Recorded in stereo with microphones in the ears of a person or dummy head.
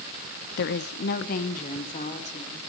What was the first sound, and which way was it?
A woman speaking, 60° left (ahead or behind).